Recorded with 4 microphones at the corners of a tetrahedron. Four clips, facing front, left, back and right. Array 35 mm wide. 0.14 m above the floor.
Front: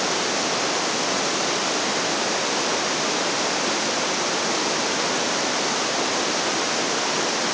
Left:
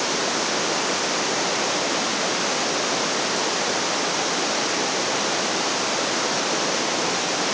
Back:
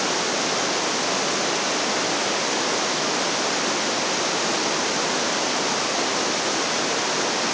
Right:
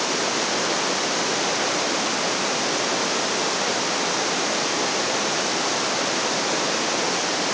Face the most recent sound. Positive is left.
No sound to turn to.